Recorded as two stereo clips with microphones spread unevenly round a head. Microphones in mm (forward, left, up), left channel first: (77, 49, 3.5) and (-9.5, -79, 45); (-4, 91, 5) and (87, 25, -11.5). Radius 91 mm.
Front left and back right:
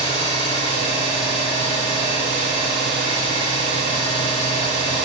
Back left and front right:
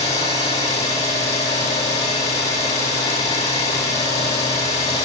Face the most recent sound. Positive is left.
turn(degrees=115)